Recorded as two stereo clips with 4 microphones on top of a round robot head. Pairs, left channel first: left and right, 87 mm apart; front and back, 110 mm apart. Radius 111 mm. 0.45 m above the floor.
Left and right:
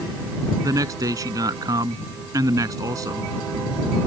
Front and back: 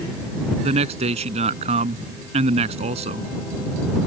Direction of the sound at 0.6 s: 145° right.